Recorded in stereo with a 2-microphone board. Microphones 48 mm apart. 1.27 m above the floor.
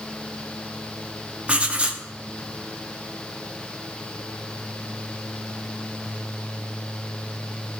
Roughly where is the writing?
Right.